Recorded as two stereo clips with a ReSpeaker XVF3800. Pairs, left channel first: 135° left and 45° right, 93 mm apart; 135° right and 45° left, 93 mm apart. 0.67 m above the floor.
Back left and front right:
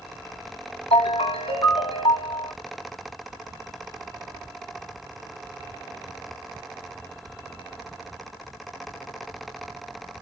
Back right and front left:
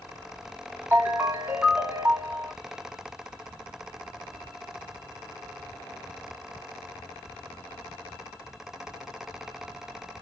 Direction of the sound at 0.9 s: 115° left.